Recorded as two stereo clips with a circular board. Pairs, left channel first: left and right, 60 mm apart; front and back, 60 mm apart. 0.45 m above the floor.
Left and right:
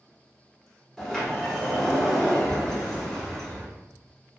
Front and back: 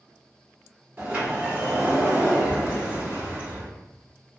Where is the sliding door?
160° left, 1.1 m.